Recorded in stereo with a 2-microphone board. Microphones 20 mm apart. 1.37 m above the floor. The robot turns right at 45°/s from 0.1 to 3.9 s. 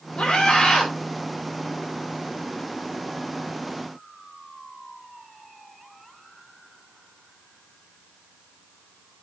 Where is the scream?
120° left, 3 m; by 0.9 s 150° left, 3 m.